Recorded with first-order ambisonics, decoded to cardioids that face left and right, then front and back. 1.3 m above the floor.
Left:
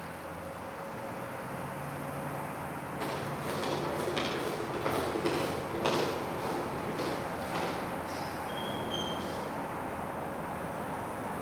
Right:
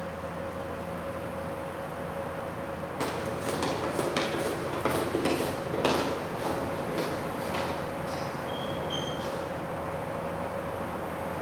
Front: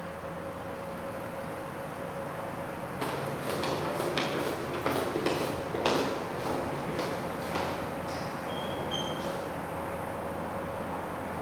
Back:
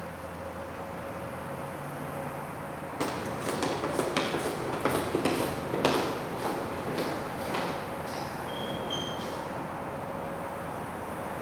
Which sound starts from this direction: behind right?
Footsteps, at 3.0 s.